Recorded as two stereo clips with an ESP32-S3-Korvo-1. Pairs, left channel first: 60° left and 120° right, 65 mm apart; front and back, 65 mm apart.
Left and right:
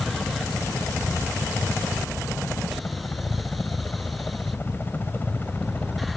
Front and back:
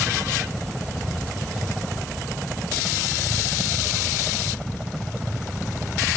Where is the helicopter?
100° left.